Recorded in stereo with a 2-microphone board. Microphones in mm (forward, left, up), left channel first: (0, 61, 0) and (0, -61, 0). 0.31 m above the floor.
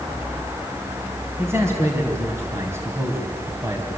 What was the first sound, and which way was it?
A man speaking, 20° right (ahead or behind).